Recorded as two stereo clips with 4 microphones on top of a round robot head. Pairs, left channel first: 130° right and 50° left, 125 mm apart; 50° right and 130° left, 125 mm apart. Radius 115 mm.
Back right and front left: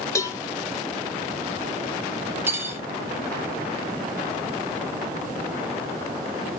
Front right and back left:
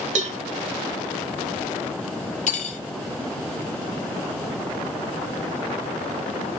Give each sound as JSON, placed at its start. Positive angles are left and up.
{"t": 0.1, "sound": "a cowbell", "azimuth_deg": 160, "distance_m": 0.6}
{"t": 2.5, "sound": "cutlery clinking", "azimuth_deg": -25, "distance_m": 1.2}